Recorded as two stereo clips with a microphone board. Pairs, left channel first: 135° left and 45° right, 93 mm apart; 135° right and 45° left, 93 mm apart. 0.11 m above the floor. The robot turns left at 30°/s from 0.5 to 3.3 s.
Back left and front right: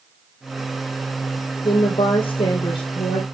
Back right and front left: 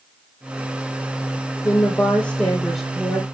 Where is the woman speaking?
170° left, 3.5 m; by 3.2 s 120° left, 3.5 m.